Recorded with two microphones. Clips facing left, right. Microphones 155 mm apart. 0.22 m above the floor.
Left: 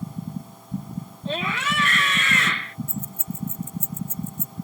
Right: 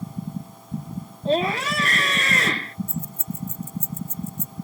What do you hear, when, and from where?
1.2 s a scream: 35° right (ahead or behind)
2.9 s keys jangling: 35° right (ahead or behind)